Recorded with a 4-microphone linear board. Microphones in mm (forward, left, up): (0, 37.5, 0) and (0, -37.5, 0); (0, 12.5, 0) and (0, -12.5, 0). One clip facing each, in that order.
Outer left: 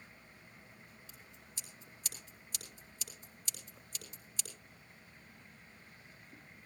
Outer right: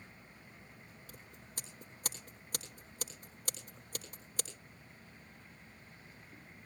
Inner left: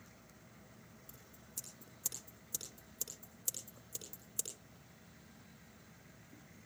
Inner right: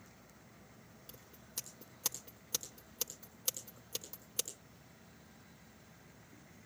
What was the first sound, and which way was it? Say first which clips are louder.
Scissors: outer right 3 dB, inner right 5 dB; 50° right (ahead or behind).